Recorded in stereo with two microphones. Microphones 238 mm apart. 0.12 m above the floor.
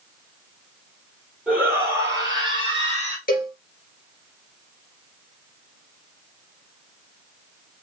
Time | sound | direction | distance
1.5 | a shout | 5° right (ahead or behind) | 3.5 m
3.3 | a cowbell | 40° left (ahead or behind) | 2 m